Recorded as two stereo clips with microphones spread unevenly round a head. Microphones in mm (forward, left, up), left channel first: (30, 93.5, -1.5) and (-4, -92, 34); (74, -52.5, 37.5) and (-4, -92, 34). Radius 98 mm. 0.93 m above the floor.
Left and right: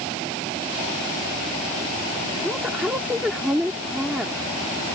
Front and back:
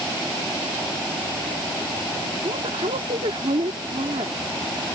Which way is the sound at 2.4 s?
175° left.